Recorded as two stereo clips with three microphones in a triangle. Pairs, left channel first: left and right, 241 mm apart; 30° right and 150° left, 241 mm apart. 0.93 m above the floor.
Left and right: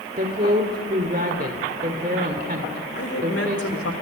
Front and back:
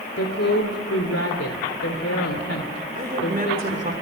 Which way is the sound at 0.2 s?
40° right.